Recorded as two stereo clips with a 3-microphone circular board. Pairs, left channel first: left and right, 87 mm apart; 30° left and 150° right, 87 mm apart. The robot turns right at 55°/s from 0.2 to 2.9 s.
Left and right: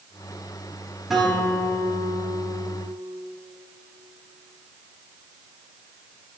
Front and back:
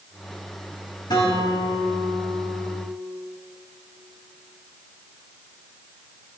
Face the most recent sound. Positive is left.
turn(degrees=95)